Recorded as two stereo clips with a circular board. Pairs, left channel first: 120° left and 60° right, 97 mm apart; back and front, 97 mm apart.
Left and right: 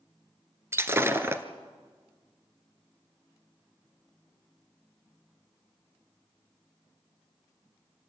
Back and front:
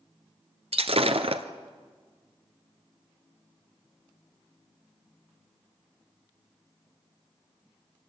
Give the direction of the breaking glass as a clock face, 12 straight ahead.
12 o'clock.